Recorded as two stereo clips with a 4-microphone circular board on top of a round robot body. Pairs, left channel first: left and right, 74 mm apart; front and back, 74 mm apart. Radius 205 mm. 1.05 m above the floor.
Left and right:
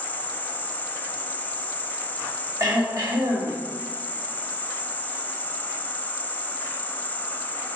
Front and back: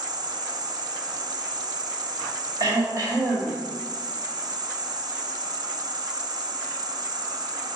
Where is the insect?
160° left, 0.9 m.